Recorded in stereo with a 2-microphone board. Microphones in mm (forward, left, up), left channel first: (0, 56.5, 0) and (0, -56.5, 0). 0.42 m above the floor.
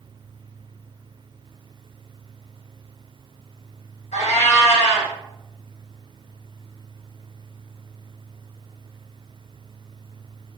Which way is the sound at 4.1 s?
80° left.